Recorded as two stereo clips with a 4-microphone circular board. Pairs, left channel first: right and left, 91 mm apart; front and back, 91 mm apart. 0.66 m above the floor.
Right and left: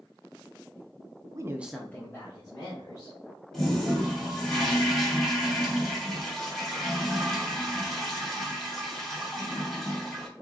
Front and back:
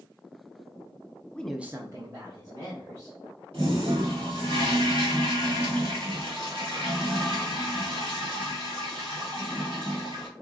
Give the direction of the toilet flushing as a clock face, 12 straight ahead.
6 o'clock.